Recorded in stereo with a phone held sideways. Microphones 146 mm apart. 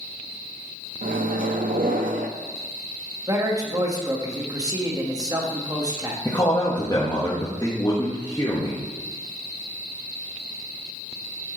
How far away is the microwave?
About 0.7 m.